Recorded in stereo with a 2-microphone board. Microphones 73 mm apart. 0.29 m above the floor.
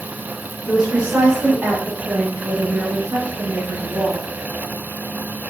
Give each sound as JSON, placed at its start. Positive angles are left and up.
{"t": 0.7, "sound": "a woman speaking", "side_deg": -10, "distance_m": 1.6}